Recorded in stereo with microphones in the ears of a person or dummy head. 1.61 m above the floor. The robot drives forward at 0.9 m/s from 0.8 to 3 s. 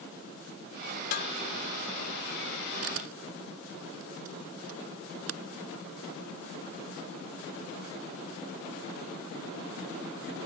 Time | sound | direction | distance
1.1 | dishes clattering | 50° left (ahead or behind) | ?
2.8 | a camera shutter | 75° right (ahead or behind) | ?